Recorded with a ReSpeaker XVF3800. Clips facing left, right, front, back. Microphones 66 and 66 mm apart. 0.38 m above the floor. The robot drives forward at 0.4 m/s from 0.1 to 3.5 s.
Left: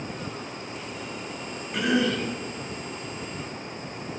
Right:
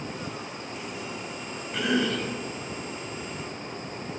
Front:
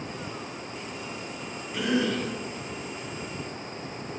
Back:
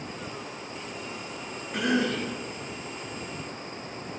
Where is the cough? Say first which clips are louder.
Left 2 dB, even; straight behind, 1.8 m.